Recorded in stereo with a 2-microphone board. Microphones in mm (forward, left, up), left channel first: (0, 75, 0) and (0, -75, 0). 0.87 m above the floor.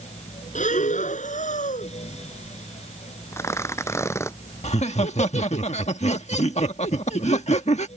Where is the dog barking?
No dog barking in this recording.